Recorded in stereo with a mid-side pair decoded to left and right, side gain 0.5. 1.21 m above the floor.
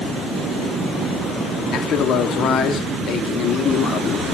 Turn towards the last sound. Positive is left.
turn(degrees=60)